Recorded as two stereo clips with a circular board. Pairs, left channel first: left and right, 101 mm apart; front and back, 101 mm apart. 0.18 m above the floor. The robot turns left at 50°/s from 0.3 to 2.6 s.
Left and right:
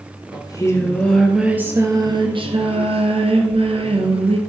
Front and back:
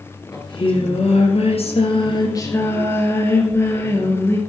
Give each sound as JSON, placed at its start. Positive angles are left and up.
{"t": 0.3, "sound": "singing", "azimuth_deg": 45, "distance_m": 2.0}